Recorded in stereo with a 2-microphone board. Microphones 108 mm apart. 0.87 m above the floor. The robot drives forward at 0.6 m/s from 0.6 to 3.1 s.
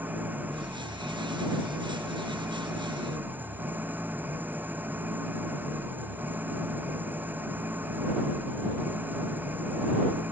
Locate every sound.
0.0 s an engine running: 15° right (ahead or behind)